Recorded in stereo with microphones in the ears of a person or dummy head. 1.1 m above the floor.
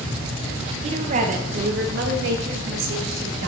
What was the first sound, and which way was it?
A woman speaking, 30° right (ahead or behind).